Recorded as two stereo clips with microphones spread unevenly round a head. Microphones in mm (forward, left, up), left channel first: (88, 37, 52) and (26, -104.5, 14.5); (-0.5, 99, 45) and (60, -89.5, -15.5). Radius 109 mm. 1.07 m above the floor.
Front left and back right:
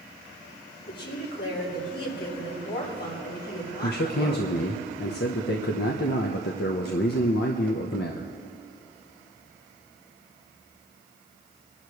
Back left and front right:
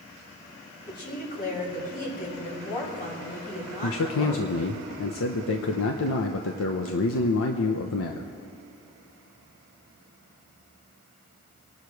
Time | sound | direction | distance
0.9 | a woman speaking | 55° left | 6 m
3.8 | a man speaking | 90° left | 0.9 m